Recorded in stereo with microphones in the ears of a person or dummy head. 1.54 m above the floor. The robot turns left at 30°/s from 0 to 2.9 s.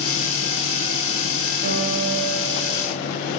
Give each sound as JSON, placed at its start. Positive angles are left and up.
{"t": 1.6, "sound": "a piano", "azimuth_deg": -120, "distance_m": 2.0}